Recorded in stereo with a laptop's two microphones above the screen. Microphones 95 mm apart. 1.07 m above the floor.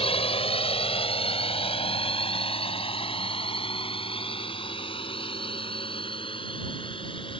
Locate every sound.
0.0 s a drone: 80° left; by 7.4 s 65° left (ahead or behind)